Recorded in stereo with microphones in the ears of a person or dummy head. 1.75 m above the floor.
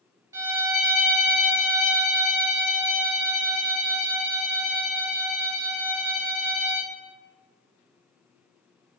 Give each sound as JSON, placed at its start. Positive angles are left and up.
{"t": 0.3, "sound": "a violin", "side_deg": -15, "distance_m": 1.7}